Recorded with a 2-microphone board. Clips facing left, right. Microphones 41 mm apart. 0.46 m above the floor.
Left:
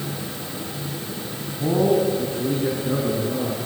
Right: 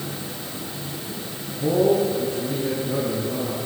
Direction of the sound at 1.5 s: 15° left (ahead or behind).